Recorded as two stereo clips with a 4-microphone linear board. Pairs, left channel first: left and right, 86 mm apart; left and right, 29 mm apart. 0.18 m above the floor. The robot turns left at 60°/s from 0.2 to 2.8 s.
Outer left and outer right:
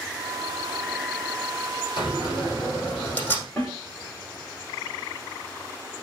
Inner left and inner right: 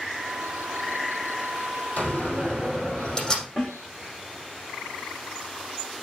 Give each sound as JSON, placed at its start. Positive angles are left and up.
{"t": 2.0, "sound": "a door slam", "azimuth_deg": 70, "distance_m": 4.5}
{"t": 3.6, "sound": "a snare drum", "side_deg": 15, "distance_m": 4.5}